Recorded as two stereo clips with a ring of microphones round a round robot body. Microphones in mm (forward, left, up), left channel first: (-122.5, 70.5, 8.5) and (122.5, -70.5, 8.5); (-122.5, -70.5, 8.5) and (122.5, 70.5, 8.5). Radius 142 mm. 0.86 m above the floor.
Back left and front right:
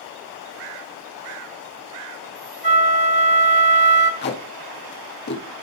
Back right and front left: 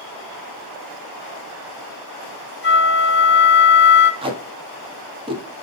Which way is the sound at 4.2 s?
100° left.